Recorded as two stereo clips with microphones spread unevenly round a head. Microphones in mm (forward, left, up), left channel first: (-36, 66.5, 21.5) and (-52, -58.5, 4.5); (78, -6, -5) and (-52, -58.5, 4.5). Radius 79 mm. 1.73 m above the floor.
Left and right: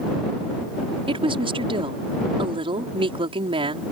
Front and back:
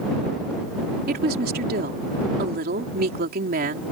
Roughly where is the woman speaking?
Behind right.